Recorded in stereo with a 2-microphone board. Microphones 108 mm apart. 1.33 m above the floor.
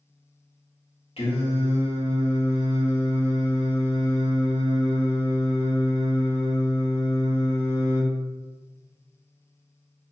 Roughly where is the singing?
Left.